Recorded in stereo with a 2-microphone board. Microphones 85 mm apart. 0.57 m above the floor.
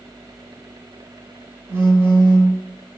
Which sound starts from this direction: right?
A phone buzzing, at 1.7 s.